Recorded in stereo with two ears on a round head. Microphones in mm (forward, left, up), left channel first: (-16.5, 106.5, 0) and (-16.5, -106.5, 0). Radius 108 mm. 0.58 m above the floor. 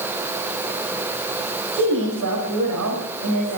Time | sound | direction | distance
1.7 | a woman speaking | 75° right (ahead or behind) | 6 m